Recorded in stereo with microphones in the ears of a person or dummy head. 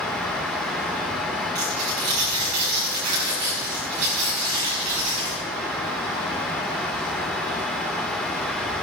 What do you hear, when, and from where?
1.6 s tearing paper: 40° right (ahead or behind), 7.5 m